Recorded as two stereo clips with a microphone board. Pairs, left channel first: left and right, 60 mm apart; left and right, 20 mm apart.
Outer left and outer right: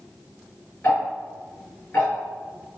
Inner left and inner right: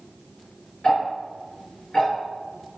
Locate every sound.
0.8 s ticking: 30° left (ahead or behind), 2 m